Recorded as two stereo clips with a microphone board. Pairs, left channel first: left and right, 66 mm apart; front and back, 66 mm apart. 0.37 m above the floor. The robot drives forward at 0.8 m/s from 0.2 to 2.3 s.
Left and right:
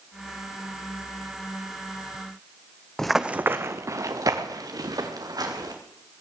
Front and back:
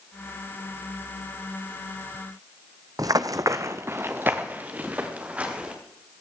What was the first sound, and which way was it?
Running footsteps, 170° left.